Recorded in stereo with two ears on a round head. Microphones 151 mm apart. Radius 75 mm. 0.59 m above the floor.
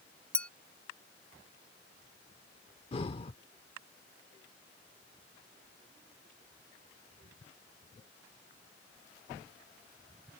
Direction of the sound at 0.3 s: 5° left (ahead or behind).